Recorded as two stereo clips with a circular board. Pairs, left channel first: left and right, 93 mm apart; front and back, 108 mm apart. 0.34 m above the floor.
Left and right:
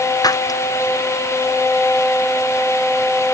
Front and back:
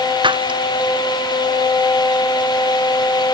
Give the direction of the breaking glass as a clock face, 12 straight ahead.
7 o'clock.